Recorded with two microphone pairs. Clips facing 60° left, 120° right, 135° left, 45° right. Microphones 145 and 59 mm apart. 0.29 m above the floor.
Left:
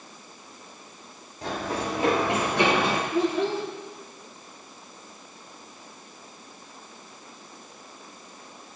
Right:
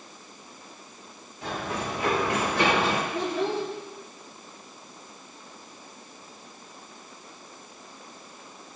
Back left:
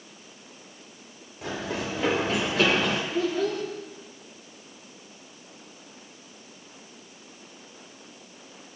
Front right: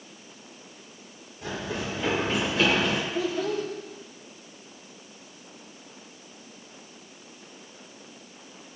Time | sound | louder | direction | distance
1.4 | running footsteps | left 2 dB, back left 1 dB | 115° left | 6 m
3.1 | a child speaking | left 3 dB, back left 1 dB | 145° left | 4.5 m